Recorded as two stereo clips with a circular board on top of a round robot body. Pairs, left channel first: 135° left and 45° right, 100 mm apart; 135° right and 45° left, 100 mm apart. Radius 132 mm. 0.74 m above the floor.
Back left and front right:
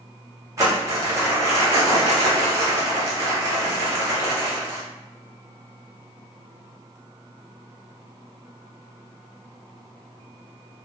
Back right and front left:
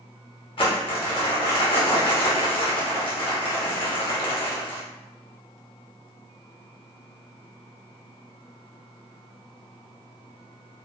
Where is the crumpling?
105° right, 1.0 m.